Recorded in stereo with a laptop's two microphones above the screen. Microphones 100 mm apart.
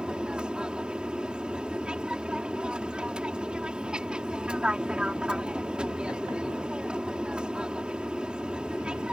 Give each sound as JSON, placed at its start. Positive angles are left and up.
{"t": 0.0, "sound": "an aircraft", "side_deg": -10}